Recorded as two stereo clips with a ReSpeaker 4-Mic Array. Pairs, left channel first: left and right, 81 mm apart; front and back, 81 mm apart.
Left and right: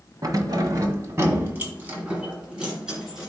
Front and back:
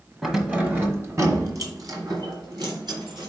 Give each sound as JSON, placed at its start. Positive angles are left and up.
{"t": 0.2, "sound": "keys jangling", "azimuth_deg": -100, "distance_m": 1.2}